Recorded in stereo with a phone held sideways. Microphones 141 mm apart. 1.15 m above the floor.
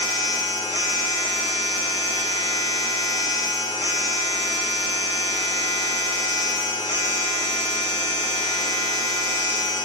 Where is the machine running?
30° left (ahead or behind), 1.5 m.